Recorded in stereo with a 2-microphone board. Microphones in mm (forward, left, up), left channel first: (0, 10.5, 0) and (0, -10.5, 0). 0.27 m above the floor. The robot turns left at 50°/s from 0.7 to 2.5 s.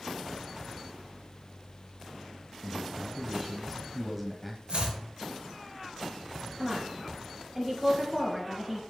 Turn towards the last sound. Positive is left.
turn(degrees=-10)  # may be behind; listen again after turning